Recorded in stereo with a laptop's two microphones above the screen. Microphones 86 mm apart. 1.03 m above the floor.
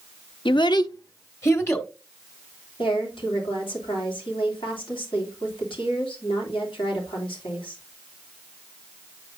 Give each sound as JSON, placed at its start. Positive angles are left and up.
{"t": 0.5, "sound": "a child speaking", "side_deg": 70, "distance_m": 0.6}
{"t": 2.8, "sound": "a woman speaking", "side_deg": 80, "distance_m": 2.5}